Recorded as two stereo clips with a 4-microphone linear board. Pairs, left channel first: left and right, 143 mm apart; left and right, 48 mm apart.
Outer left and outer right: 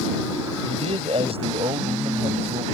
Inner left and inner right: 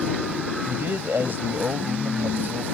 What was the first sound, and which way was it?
A man speaking, 45° right (ahead or behind).